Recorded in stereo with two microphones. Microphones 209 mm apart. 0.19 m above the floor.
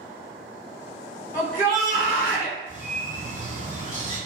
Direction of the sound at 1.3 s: 15° left (ahead or behind).